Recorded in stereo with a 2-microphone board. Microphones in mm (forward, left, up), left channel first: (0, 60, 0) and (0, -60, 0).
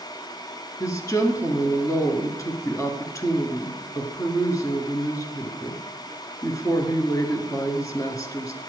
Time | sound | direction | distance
0.8 | a woman speaking | 30° left (ahead or behind) | 1.3 m